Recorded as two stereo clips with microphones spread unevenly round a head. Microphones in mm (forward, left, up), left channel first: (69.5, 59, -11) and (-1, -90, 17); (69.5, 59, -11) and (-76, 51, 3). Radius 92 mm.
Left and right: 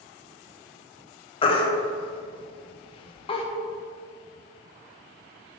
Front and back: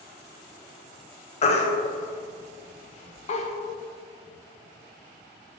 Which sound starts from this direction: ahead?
A baby crying, at 1.4 s.